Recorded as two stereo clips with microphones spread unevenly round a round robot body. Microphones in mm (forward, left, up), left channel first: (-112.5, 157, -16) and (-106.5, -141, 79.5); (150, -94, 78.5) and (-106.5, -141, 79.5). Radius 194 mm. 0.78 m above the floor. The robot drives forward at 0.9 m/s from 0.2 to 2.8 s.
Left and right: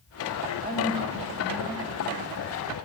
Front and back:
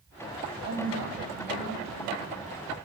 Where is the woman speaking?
155° right, 6 m; by 2.2 s 160° right, 7 m.